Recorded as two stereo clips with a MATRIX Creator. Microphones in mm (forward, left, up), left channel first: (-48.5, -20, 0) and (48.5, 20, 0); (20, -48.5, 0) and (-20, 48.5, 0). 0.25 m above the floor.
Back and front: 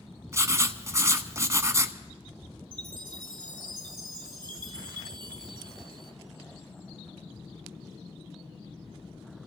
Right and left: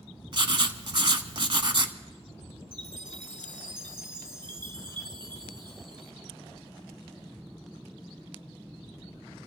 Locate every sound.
0.3 s writing: 80° left, 0.8 m
2.7 s a chime: 70° left, 1.7 m